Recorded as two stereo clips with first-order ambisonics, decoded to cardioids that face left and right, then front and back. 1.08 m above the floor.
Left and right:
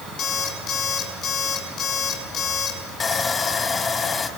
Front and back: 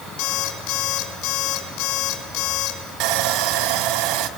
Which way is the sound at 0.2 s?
35° left.